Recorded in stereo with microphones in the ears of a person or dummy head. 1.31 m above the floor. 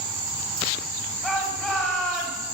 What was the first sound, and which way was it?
A shout, 10° left (ahead or behind).